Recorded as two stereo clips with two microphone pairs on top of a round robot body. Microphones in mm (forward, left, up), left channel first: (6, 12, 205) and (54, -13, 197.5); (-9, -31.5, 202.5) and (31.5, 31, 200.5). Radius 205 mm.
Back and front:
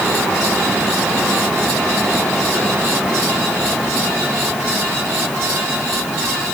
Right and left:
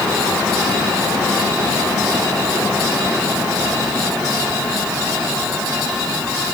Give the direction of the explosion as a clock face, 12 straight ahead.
No explosion in this recording.